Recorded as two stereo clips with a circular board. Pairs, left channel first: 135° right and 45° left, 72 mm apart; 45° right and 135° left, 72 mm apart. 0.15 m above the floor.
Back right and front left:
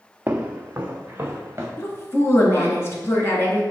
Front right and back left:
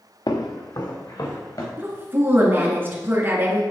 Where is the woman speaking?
175° right, 1.9 m.